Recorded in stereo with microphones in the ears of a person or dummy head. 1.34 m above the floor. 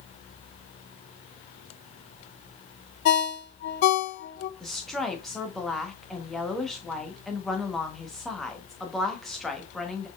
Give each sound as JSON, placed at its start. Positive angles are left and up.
{"t": 3.0, "sound": "a ringtone", "side_deg": 60, "distance_m": 0.6}
{"t": 4.6, "sound": "a woman speaking", "side_deg": 0, "distance_m": 1.0}